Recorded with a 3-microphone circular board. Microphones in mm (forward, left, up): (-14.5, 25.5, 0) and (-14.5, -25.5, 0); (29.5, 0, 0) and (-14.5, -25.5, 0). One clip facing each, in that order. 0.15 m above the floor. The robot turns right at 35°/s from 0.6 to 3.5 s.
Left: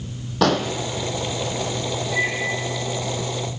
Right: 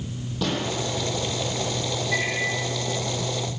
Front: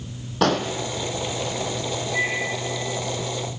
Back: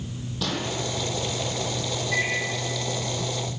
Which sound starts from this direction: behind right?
A microwave, at 2.1 s.